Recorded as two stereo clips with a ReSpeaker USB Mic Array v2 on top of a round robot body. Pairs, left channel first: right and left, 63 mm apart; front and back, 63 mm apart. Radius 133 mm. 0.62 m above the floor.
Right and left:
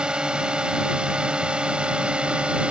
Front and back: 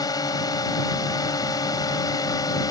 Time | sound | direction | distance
0.0 | a drone | 15° left | ?